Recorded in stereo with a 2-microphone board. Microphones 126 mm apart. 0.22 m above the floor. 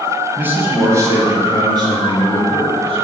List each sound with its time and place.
0.4 s a man speaking: 15° right (ahead or behind), 1.6 m; by 3.0 s 50° right (ahead or behind), 2 m